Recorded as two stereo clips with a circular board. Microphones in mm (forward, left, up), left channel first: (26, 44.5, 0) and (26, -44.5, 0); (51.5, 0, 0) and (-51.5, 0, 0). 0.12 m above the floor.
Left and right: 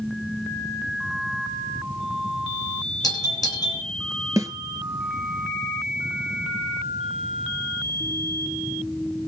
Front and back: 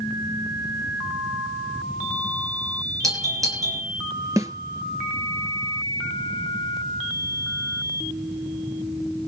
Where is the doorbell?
130° left, 5 m.